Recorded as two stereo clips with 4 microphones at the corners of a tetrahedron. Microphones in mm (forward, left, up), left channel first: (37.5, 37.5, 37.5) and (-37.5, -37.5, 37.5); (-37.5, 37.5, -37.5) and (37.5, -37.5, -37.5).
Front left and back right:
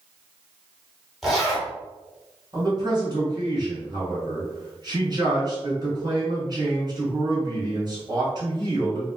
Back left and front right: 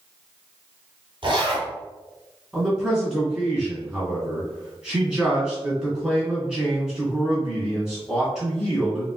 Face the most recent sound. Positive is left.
turn(degrees=-125)